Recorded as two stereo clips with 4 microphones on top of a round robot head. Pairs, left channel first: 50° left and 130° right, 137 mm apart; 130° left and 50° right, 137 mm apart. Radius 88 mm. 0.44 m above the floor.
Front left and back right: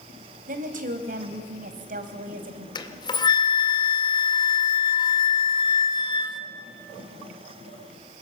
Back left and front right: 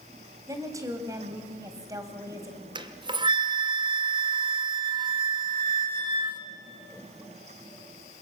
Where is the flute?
Straight ahead, 1.5 m.